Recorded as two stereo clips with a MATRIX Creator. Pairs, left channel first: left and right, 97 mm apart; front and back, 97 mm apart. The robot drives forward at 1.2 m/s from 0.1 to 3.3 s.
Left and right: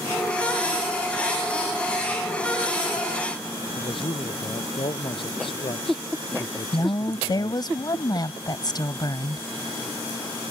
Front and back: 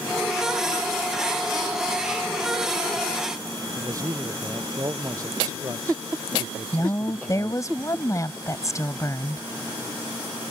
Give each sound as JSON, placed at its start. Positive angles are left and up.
{"t": 3.8, "sound": "a man speaking", "azimuth_deg": 125}
{"t": 6.7, "sound": "a woman speaking", "azimuth_deg": 50}